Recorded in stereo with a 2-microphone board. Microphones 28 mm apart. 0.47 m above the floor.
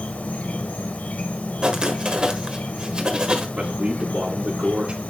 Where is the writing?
35° right (ahead or behind), 1.4 m.